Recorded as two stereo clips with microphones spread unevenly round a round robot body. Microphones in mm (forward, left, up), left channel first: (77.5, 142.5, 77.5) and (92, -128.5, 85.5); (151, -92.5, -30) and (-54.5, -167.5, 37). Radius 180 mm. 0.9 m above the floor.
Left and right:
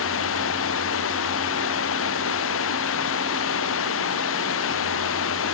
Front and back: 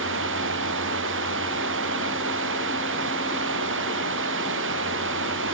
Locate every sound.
0.0 s running water: 145° left